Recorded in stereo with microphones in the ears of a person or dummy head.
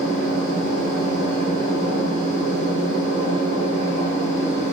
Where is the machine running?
45° left (ahead or behind), 1.9 m.